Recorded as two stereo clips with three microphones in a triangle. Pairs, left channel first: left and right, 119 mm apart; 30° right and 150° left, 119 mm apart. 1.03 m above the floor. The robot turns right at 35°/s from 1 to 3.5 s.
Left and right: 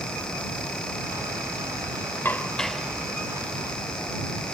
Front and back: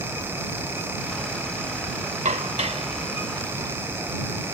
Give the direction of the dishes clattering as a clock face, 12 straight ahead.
7 o'clock.